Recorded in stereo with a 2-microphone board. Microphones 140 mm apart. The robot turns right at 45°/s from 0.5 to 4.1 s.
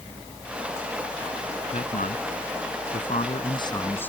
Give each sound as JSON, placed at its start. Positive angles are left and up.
{"t": 1.7, "sound": "a man speaking", "azimuth_deg": 60}